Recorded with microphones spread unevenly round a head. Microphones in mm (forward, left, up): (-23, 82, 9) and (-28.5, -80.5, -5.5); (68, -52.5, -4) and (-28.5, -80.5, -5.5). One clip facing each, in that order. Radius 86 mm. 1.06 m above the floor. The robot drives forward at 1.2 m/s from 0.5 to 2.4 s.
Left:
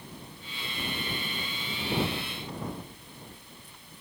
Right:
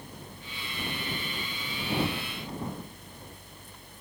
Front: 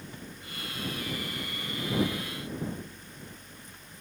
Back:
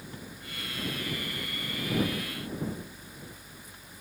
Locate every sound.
Only background noise.